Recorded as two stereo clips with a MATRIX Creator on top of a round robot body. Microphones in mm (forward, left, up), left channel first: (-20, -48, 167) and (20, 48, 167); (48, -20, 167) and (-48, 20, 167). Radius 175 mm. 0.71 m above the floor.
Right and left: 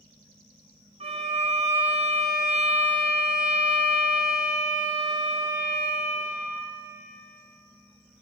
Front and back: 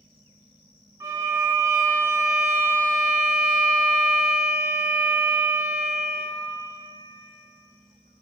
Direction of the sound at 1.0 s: 95° left.